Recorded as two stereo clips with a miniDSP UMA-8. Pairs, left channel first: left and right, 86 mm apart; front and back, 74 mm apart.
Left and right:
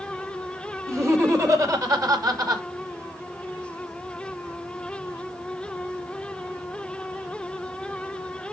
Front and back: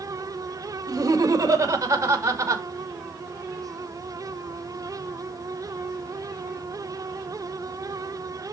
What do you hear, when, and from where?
0.9 s laughter: 145° right, 1.8 m; by 2.6 s 130° right, 3 m